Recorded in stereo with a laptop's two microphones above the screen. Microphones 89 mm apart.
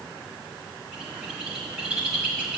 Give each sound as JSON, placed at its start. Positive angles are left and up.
{"t": 0.9, "sound": "a bird", "side_deg": -10, "distance_m": 1.4}